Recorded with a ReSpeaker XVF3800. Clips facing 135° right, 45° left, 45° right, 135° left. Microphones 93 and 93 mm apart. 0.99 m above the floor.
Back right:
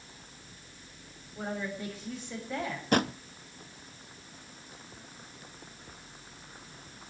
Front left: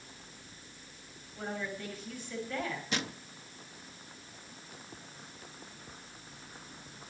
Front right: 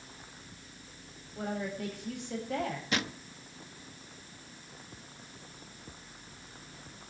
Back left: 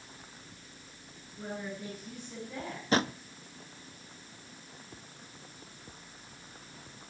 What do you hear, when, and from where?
1.4 s a woman speaking: 60° right, 7 m
2.9 s a drawer: 175° right, 0.6 m